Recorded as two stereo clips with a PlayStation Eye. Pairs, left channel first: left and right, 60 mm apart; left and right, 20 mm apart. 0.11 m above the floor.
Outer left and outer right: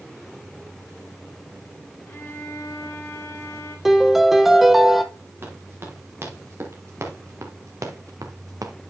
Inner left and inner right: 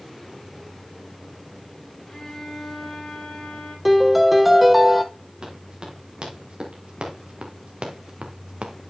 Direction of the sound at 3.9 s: 5° right (ahead or behind).